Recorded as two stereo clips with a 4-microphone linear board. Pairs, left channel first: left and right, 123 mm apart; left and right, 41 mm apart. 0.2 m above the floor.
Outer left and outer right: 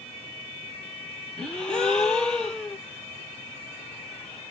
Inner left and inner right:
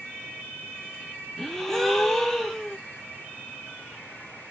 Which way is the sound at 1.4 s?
5° left (ahead or behind).